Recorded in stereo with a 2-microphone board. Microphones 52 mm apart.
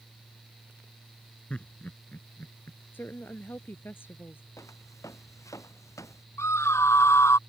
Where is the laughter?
25° left (ahead or behind); by 2.8 s 50° left (ahead or behind).